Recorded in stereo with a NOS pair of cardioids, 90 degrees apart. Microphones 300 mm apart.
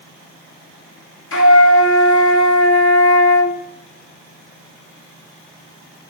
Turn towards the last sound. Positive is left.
turn(degrees=45)